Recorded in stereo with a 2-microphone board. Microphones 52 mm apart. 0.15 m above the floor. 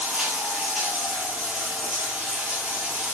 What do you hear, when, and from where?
0.0 s running water: 20° right (ahead or behind), 1.4 m